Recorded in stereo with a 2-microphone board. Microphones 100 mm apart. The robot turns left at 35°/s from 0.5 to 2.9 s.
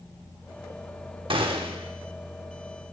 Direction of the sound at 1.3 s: 60° right (ahead or behind).